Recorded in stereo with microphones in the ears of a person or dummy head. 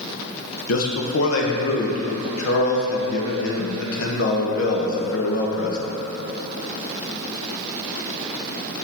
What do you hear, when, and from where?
0.7 s a man speaking: 80° left, 1.4 m